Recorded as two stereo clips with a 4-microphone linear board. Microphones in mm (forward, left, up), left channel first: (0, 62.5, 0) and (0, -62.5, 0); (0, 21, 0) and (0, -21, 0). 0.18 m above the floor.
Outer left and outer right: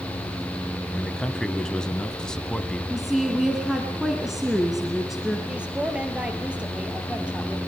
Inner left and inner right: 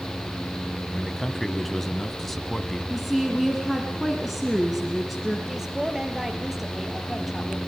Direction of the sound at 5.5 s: 10° right (ahead or behind).